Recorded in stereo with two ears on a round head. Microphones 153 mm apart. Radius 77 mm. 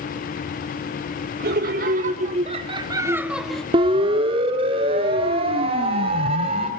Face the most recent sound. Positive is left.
turn(degrees=-35)  # may be behind; listen again after turning